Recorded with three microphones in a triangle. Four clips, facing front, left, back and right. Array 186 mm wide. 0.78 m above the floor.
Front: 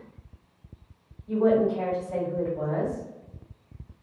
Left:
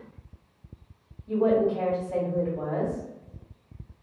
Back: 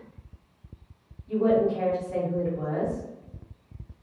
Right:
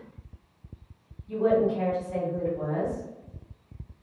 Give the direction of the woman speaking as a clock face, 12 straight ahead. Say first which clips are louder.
Left 1 dB, front 1 dB; 10 o'clock.